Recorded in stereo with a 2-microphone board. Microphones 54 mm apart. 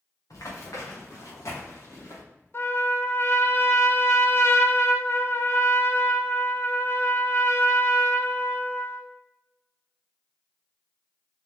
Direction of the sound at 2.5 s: 50° left (ahead or behind).